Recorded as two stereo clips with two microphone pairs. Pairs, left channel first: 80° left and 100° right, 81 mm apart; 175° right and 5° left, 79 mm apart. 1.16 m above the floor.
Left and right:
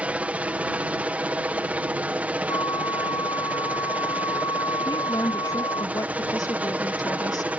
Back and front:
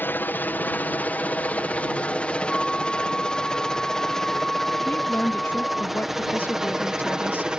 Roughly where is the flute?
Left.